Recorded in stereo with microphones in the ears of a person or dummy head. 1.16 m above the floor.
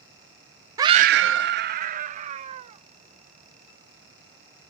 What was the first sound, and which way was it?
A scream, 15° right (ahead or behind).